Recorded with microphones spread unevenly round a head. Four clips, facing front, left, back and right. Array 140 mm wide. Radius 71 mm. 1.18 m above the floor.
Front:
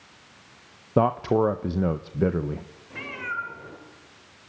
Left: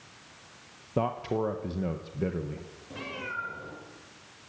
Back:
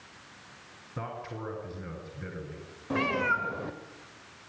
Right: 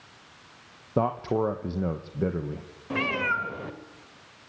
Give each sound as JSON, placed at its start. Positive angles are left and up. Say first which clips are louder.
{"t": 1.0, "sound": "a man speaking", "louder": "right 4 dB, front 18 dB", "azimuth_deg": -10, "distance_m": 1.0}
{"t": 2.9, "sound": "a cat meowing", "louder": "right 10 dB, back 6 dB", "azimuth_deg": -145, "distance_m": 1.9}